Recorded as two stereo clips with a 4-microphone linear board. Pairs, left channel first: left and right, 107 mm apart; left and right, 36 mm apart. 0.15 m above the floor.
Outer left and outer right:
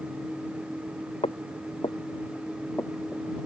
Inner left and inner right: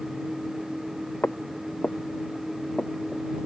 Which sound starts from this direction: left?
Footsteps, at 1.2 s.